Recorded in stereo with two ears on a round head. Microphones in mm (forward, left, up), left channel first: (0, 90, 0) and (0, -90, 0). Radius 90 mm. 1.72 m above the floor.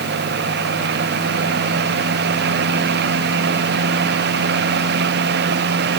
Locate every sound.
Only background noise.